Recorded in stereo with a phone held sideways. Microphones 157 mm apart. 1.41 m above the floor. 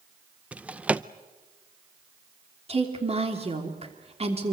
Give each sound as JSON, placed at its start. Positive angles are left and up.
{"t": 0.5, "sound": "a drawer", "side_deg": -10, "distance_m": 0.5}
{"t": 2.7, "sound": "a woman speaking", "side_deg": -40, "distance_m": 3.0}